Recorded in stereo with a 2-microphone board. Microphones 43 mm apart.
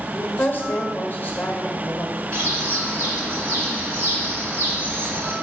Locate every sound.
0.1 s a woman speaking: 45° left (ahead or behind), 0.8 m
2.3 s a bird: 60° right (ahead or behind), 1.3 m